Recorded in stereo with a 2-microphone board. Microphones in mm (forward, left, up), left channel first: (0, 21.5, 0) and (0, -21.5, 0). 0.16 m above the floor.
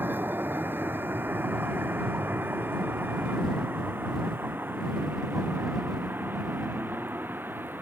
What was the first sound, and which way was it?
A vehicle, 50° right (ahead or behind).